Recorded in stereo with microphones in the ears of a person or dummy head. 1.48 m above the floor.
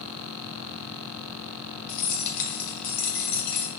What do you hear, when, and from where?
1.9 s keys jangling: 55° left (ahead or behind), 1.6 m